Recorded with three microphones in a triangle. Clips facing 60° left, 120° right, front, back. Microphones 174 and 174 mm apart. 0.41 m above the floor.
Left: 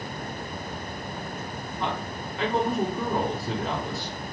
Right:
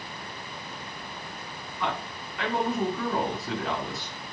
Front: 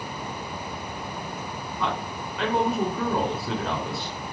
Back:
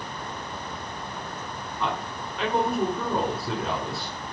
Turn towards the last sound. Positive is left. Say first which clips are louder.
# left 1 dB, front 1 dB
turn(degrees=90)